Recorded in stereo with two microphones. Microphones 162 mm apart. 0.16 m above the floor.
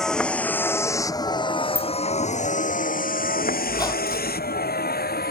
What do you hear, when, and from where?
0.0 s a vehicle: 5° left (ahead or behind); by 5.3 s 85° left
1.8 s a bicycle bell: 10° right (ahead or behind)
3.7 s a squeak: 25° left (ahead or behind)